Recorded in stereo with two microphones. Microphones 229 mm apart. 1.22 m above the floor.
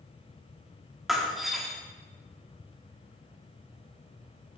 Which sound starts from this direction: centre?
Breaking glass, at 1.1 s.